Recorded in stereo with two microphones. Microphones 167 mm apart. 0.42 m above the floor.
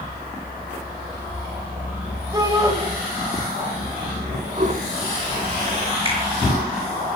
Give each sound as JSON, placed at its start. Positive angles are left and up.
{"t": 2.3, "sound": "a shout", "side_deg": -20, "distance_m": 3.0}
{"t": 4.6, "sound": "a toilet flushing", "side_deg": -50, "distance_m": 1.2}
{"t": 6.0, "sound": "a finger snap", "side_deg": -30, "distance_m": 6.0}